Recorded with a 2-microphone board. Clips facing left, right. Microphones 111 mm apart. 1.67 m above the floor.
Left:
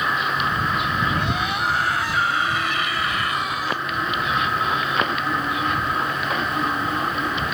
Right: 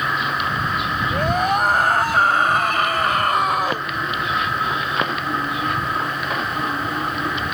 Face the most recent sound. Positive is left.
turn(degrees=-50)  # may be behind; listen again after turning